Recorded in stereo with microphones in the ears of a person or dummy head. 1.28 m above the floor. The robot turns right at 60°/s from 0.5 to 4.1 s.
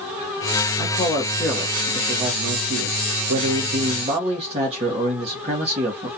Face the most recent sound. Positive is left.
turn(degrees=-30)